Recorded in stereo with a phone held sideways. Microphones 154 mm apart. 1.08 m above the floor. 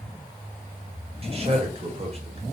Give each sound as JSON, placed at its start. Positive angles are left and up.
{"t": 1.2, "sound": "a man speaking", "side_deg": -40, "distance_m": 1.4}